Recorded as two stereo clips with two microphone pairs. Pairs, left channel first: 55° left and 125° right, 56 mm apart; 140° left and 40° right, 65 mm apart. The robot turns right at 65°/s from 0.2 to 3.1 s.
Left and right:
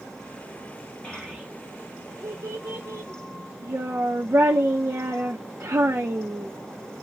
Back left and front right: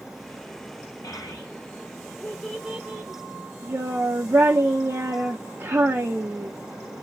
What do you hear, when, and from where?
1.0 s a child speaking: 135° left, 0.6 m; by 6.5 s 90° right, 0.6 m